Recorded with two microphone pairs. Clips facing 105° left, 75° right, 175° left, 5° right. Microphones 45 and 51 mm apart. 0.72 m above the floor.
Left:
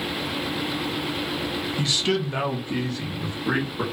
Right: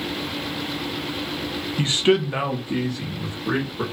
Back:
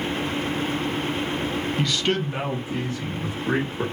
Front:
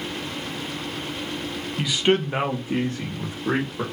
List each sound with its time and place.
1.8 s a man speaking: 85° right, 0.5 m; by 3.8 s 30° left, 1.2 m